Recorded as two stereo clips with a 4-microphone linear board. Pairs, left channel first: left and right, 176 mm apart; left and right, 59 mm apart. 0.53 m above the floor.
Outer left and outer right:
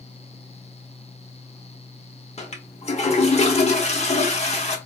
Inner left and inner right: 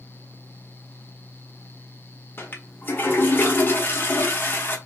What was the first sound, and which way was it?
A toilet flushing, 40° left (ahead or behind).